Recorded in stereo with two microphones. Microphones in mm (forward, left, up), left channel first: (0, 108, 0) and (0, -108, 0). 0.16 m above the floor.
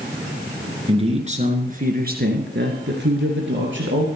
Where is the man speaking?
25° right (ahead or behind), 2.5 m; by 4.1 s 65° right (ahead or behind), 3.5 m.